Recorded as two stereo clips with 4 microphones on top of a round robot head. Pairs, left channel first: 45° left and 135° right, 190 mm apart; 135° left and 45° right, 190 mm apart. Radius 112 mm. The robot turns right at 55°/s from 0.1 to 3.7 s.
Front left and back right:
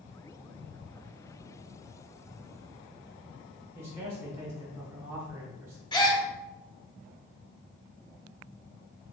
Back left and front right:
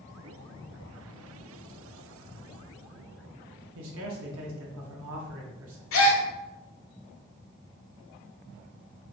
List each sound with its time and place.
3.8 s a man speaking: 55° right, 1.3 m
5.9 s a gasp: 115° left, 1.0 m